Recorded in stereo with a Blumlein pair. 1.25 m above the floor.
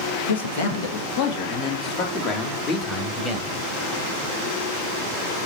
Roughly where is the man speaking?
Ahead left.